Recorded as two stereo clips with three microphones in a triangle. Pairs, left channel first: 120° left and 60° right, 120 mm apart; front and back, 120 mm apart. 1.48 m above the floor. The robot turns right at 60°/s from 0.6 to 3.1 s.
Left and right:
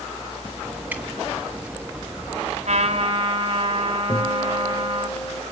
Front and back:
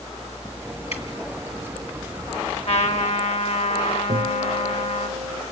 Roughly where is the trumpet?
Ahead right.